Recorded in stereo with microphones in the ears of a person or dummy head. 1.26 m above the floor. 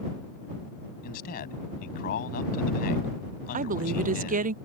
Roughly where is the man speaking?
Left.